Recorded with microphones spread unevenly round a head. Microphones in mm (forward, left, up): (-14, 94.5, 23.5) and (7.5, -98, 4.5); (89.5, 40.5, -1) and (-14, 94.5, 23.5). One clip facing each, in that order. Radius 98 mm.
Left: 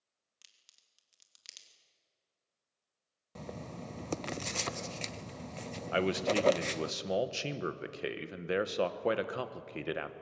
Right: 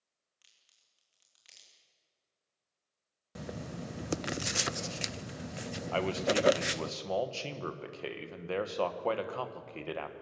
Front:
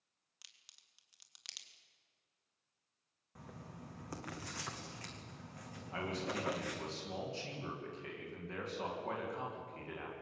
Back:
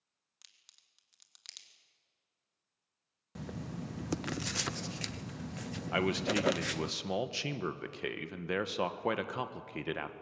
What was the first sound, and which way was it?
A crack, 60° left.